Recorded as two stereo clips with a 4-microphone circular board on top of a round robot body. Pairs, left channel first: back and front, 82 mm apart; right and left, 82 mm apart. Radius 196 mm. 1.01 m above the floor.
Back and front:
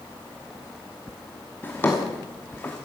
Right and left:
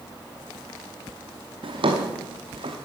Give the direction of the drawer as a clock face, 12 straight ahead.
8 o'clock.